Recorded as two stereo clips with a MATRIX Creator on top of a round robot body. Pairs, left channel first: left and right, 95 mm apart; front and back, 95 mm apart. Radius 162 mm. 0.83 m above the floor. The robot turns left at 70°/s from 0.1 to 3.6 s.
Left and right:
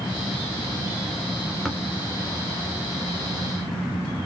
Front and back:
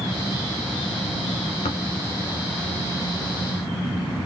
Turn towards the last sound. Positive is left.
turn(degrees=-140)